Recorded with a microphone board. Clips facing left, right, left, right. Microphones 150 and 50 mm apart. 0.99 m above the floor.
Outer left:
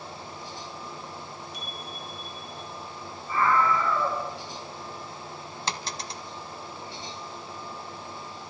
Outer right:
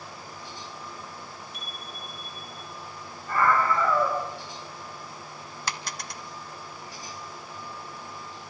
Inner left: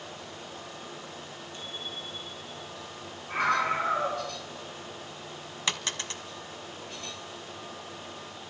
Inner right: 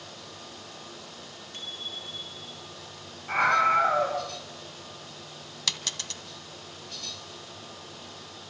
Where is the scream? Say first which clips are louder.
Even, inner right 5 dB; 70° right (ahead or behind), 5.5 m.